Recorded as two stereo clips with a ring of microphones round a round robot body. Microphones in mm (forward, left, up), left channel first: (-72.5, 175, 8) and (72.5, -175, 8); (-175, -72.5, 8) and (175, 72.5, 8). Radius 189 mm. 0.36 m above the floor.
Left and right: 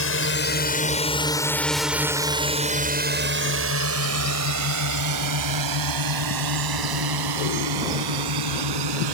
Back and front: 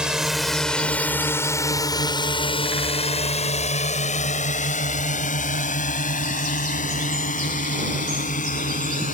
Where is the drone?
110° left; by 9.1 s 90° right.